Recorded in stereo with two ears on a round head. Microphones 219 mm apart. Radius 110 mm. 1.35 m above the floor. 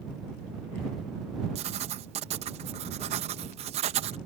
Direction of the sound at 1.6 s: 25° right (ahead or behind).